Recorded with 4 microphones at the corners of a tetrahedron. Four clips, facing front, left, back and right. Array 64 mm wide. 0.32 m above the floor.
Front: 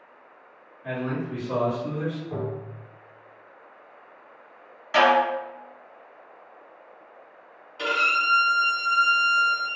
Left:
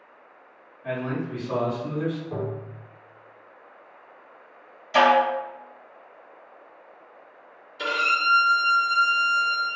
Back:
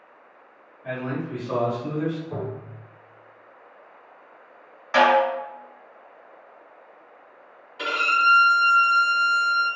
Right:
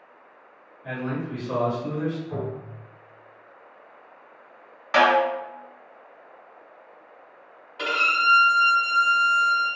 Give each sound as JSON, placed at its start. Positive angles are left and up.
{"t": 0.8, "sound": "a man speaking", "azimuth_deg": 115, "distance_m": 1.2}
{"t": 2.3, "sound": "tapping", "azimuth_deg": 85, "distance_m": 1.3}
{"t": 4.9, "sound": "a snare drum", "azimuth_deg": -110, "distance_m": 1.7}
{"t": 7.8, "sound": "a violin", "azimuth_deg": -85, "distance_m": 1.8}